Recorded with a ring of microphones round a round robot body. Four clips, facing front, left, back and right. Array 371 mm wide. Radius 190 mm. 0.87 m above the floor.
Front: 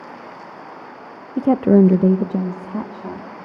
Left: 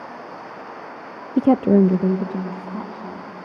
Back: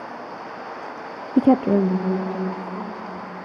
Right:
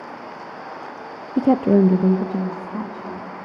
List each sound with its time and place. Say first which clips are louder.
1.4 s a woman speaking: left 1 dB, front 3 dB; 160° left, 0.5 m; by 3.3 s straight ahead, 2.5 m